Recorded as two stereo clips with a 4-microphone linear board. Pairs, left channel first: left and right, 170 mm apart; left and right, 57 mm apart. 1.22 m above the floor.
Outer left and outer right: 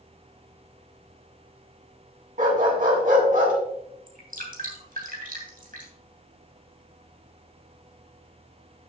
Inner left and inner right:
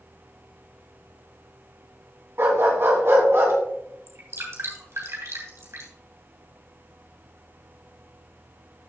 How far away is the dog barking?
About 2.5 m.